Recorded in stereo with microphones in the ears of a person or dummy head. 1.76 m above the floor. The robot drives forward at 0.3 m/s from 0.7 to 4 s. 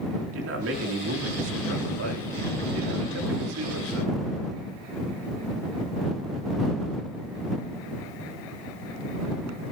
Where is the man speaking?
80° right, 3.5 m; by 4.2 s 75° right (ahead or behind), 3.5 m.